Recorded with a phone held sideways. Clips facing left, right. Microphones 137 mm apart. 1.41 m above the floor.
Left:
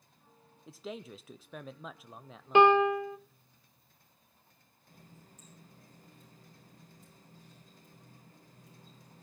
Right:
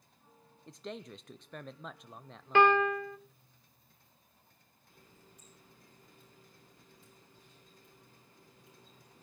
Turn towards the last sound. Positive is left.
turn(degrees=45)  # may be behind; listen again after turning